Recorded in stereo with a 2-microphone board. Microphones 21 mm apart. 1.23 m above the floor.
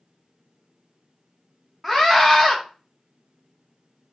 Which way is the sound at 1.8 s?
10° left (ahead or behind).